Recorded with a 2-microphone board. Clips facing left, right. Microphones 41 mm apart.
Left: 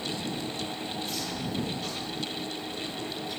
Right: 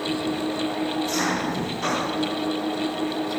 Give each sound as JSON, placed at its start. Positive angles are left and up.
{"t": 0.0, "sound": "an engine running", "side_deg": -60}